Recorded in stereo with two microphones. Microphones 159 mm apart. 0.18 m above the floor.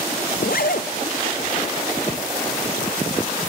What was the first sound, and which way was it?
A zipper, 70° left (ahead or behind).